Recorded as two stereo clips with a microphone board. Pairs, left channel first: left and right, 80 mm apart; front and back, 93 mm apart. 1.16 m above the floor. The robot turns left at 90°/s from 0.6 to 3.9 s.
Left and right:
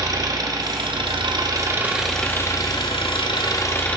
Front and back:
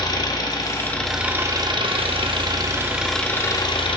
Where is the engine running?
45° right, 0.9 m; by 4.0 s 20° left, 0.9 m.